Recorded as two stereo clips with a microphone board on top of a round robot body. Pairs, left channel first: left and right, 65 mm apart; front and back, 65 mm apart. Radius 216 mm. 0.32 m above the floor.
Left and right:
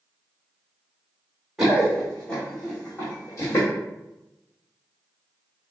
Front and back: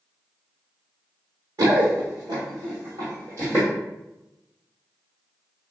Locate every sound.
1.6 s running footsteps: 175° right, 0.9 m; by 3.7 s 125° left, 1.4 m